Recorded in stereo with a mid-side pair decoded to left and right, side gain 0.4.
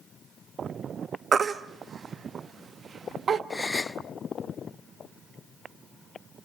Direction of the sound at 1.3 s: 50° right.